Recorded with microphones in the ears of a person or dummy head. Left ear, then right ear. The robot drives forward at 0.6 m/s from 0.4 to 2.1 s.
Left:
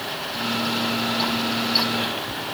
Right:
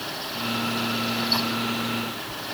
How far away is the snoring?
I don't hear snoring.